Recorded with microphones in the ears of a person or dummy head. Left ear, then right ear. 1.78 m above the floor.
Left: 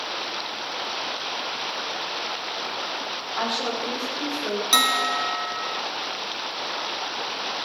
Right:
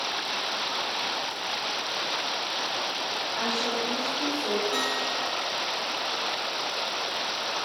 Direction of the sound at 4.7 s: 75° left (ahead or behind).